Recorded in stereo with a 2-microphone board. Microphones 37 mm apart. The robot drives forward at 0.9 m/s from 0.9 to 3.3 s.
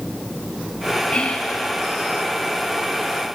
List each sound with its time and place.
1.1 s whispering: 25° left (ahead or behind), 2.5 m; by 1.6 s 30° left (ahead or behind), 2.5 m